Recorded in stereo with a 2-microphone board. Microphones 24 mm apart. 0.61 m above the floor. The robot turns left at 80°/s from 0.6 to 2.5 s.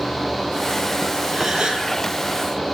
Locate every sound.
1.3 s a gasp: straight ahead, 10 m; by 1.9 s 45° right, 10 m